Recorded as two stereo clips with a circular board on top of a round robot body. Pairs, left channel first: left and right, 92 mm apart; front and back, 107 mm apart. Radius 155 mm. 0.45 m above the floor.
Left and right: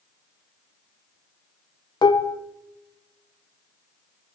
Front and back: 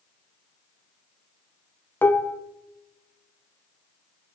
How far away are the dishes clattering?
About 0.5 m.